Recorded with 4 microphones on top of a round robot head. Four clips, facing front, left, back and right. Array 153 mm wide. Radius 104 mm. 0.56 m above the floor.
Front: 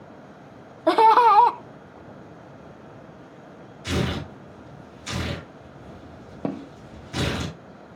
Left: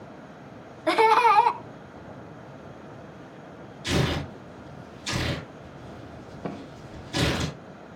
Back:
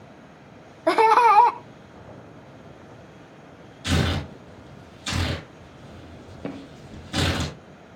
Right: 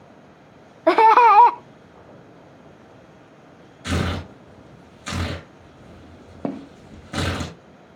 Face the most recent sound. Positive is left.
turn(degrees=35)